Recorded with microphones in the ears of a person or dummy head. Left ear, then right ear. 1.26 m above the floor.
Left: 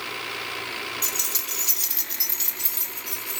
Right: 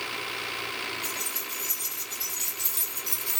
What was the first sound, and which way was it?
Keys jangling, 80° left.